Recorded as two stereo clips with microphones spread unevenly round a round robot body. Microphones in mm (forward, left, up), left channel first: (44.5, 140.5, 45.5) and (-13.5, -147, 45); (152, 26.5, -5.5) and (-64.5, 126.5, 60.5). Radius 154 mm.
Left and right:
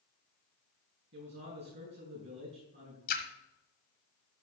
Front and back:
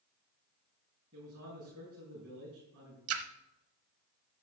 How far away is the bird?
No bird in this recording.